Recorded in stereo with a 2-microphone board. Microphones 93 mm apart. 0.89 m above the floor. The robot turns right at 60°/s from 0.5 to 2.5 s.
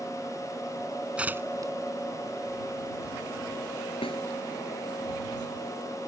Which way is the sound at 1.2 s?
10° right (ahead or behind).